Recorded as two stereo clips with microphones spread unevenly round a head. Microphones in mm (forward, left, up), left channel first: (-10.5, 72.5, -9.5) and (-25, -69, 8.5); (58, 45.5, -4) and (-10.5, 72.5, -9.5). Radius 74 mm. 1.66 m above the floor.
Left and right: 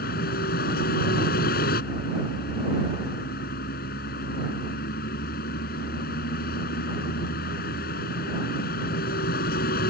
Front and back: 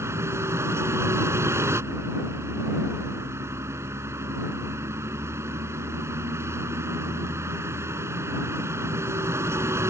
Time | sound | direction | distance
0.0 | a vehicle | 105° left | ?